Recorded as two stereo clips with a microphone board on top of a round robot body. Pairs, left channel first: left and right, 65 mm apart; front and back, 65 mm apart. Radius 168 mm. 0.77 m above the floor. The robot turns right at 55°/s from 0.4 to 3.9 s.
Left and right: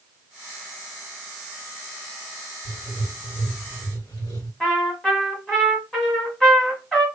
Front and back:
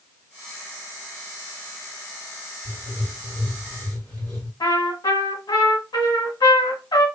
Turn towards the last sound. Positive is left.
turn(degrees=10)